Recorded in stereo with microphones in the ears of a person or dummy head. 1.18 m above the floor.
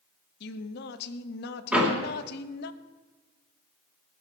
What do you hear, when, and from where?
0.4 s a woman speaking: 65° left (ahead or behind), 1.0 m
1.7 s a door slam: 5° right (ahead or behind), 2.5 m